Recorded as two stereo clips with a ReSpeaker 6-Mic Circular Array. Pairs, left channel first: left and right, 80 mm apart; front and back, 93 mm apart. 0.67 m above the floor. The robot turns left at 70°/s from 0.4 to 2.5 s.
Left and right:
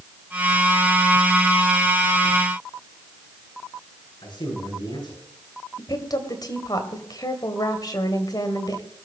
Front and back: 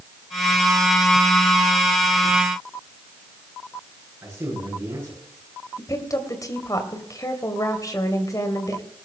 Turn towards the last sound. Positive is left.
turn(degrees=50)